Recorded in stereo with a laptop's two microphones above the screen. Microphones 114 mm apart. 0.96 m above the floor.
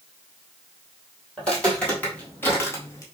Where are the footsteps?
10° left (ahead or behind), 1.5 m; by 3.0 s 25° left (ahead or behind), 1.1 m.